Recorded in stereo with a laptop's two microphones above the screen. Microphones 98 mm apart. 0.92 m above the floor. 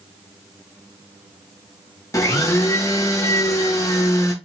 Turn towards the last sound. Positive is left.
turn(degrees=30)  # may be behind; listen again after turning